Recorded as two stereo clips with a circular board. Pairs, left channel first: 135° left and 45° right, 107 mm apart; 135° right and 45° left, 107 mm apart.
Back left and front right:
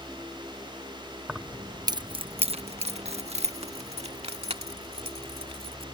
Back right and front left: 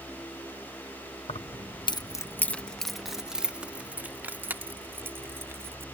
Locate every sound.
1.3 s keys jangling: 130° right; by 5.8 s 20° right